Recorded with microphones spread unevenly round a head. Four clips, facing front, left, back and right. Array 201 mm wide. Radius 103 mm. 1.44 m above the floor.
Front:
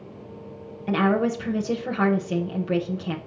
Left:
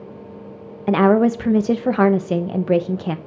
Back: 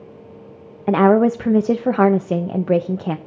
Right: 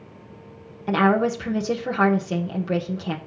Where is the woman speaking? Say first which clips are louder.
Left 5 dB, back 8 dB; 160° left, 0.9 m.